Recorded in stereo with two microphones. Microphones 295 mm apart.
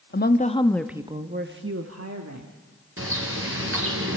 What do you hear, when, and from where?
0.1 s a woman speaking: 35° left (ahead or behind), 1.0 m; by 2.5 s 65° right (ahead or behind), 1.6 m
3.0 s a bird: 45° right (ahead or behind), 2.5 m